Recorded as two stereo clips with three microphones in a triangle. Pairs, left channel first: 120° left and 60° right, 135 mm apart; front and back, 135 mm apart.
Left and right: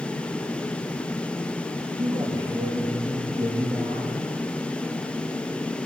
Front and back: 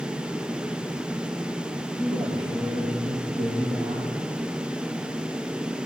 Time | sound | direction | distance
2.0 | a man speaking | 125° right | 7.5 m